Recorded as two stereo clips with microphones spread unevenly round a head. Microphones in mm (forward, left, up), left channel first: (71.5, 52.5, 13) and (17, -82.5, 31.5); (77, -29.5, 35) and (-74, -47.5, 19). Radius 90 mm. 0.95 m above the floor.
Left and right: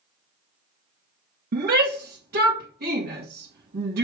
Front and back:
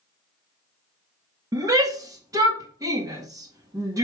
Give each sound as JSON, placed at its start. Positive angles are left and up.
{"t": 1.5, "sound": "a shout", "azimuth_deg": -110, "distance_m": 1.9}